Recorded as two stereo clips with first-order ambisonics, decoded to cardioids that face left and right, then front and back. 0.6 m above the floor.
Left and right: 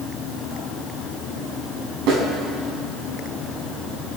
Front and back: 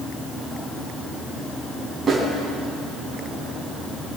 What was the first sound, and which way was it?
A snare drum, 110° right.